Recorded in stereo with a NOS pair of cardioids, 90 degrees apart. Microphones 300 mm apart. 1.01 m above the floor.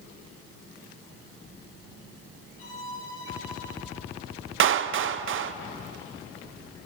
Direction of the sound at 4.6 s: 45° right.